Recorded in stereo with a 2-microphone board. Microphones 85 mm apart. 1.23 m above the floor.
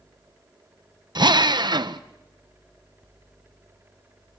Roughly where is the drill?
Right.